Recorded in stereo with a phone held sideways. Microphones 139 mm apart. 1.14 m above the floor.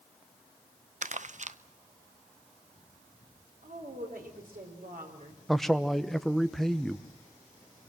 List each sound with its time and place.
1.0 s crumpling: 60° right (ahead or behind), 0.6 m
3.6 s a woman speaking: 80° right, 4 m
5.5 s a man speaking: centre (ahead or behind), 0.9 m